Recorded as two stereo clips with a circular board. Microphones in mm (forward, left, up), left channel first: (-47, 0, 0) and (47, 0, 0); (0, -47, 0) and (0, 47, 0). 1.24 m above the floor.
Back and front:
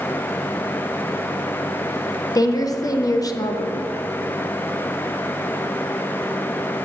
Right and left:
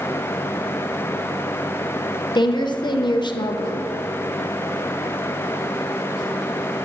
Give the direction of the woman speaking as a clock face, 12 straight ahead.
4 o'clock.